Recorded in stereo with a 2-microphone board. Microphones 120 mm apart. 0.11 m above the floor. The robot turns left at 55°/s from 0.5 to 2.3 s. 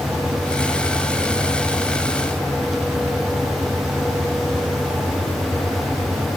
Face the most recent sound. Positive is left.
No sound to turn to.